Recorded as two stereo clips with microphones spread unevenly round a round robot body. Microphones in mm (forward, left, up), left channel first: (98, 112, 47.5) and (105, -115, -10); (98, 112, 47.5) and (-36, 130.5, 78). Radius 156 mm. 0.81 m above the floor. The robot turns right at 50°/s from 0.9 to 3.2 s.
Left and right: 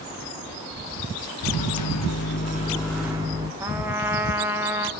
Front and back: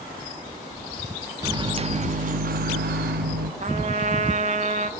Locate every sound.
1.4 s a microwave: 105° left, 0.9 m; by 3.5 s 165° right, 0.9 m
3.6 s a trumpet: 155° right, 1.3 m